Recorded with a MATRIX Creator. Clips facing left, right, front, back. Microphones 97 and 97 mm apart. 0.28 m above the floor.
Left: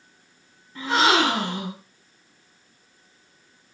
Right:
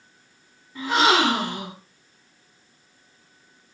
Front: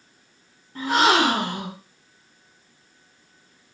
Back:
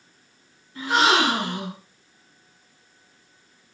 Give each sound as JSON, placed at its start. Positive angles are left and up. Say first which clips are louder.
{"t": 0.8, "sound": "a gasp", "louder": "even, front 1 dB", "azimuth_deg": -10, "distance_m": 1.9}